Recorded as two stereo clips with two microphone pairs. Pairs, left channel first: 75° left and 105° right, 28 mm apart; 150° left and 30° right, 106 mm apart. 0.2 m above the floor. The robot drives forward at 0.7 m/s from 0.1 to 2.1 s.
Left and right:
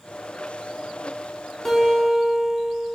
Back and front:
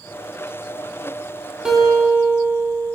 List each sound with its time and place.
1.6 s a guitar: 30° left, 0.6 m; by 3.0 s 145° left, 0.6 m